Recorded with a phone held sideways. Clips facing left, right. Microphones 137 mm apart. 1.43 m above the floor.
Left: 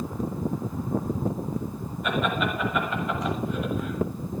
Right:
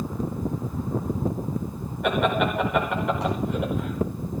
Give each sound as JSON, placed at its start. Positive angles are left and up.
{"t": 2.0, "sound": "laughter", "side_deg": -75, "distance_m": 6.0}